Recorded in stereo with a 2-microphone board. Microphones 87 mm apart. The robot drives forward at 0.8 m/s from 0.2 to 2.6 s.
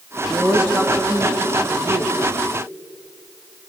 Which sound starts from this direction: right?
A woman speaking, at 0.3 s.